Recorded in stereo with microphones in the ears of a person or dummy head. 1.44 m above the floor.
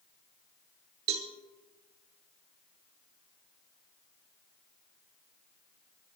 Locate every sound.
1.1 s a cowbell: 55° right (ahead or behind), 1.6 m